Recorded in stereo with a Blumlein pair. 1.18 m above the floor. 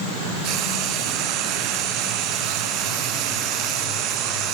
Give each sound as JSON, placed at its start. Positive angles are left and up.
{"t": 0.4, "sound": "frying", "azimuth_deg": -40, "distance_m": 1.5}